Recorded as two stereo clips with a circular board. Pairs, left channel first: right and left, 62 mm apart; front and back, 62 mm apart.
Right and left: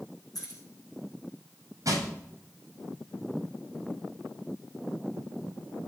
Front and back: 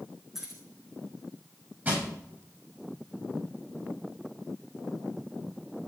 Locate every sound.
0.3 s keys jangling: 95° right, 5.5 m
1.9 s crushing: 120° left, 8 m